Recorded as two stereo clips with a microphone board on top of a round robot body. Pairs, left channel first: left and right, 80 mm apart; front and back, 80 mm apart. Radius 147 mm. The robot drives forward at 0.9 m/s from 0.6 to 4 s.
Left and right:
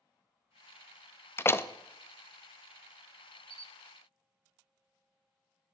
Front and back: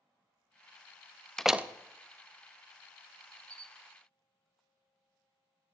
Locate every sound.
1.4 s a door slam: 75° left, 0.6 m; by 1.7 s 135° left, 0.6 m
3.5 s a camera shutter: 130° right, 0.6 m; by 3.7 s 145° right, 0.8 m